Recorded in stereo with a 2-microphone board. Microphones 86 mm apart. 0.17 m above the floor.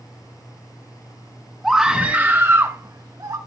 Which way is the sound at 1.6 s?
5° right (ahead or behind).